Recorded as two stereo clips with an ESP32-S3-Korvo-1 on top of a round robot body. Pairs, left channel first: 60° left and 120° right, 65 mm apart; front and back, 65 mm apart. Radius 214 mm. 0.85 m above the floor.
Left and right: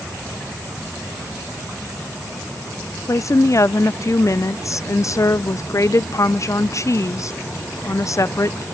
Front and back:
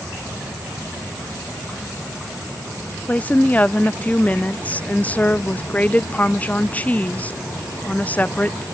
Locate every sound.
3.1 s a woman speaking: 60° left, 0.5 m